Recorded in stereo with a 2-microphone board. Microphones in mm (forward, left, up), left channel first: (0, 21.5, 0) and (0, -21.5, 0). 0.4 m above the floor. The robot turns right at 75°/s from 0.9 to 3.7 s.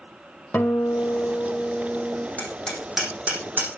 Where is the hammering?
35° left (ahead or behind), 7.5 m; by 3.7 s 60° right (ahead or behind), 7.5 m.